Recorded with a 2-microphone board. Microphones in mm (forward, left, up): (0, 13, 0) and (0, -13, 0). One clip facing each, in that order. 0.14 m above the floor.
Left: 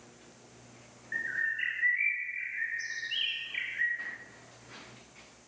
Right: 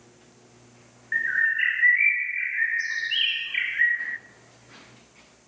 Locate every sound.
1.1 s a bird: 30° right (ahead or behind), 0.5 m